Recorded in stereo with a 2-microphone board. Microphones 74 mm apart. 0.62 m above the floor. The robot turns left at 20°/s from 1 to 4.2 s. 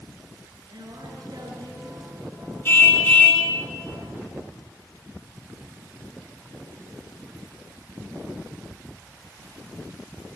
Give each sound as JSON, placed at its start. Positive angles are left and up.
{"t": 0.6, "sound": "a woman speaking", "side_deg": -65, "distance_m": 8.5}
{"t": 2.6, "sound": "a car horn", "side_deg": 30, "distance_m": 3.5}